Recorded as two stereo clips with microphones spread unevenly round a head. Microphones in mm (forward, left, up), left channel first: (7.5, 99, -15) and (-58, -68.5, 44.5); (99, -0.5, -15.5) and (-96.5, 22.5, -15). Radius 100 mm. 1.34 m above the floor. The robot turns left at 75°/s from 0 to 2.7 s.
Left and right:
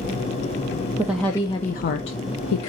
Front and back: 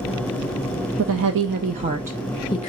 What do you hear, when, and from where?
1.0 s a woman speaking: 175° left, 0.5 m; by 2.7 s 50° left, 0.5 m